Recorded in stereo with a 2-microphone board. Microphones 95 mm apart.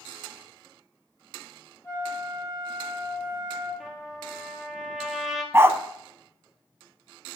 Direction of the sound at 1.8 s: 30° left (ahead or behind).